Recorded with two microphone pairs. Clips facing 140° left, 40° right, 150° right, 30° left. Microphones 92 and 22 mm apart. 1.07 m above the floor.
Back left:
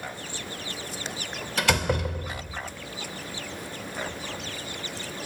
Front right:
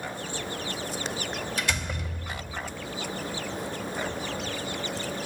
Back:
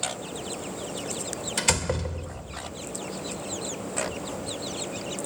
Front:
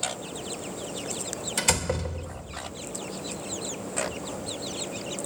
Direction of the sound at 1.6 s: 135° left.